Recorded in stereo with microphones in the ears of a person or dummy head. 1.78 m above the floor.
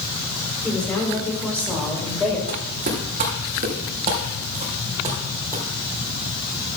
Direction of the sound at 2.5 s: 50° right (ahead or behind).